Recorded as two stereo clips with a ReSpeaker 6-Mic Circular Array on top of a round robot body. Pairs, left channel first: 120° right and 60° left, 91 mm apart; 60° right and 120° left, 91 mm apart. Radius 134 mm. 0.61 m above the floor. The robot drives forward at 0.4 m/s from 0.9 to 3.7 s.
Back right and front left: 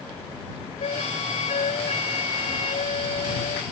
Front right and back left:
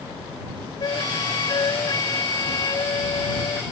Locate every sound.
0.8 s a flute: 110° right; by 3.6 s 120° right